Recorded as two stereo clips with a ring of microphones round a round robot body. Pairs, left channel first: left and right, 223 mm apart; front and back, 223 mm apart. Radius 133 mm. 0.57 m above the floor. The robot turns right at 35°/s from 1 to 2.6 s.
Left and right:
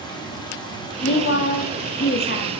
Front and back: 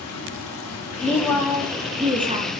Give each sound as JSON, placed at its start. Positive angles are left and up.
{"t": 0.0, "sound": "running water", "azimuth_deg": 20, "distance_m": 1.7}
{"t": 1.0, "sound": "a woman speaking", "azimuth_deg": 75, "distance_m": 0.8}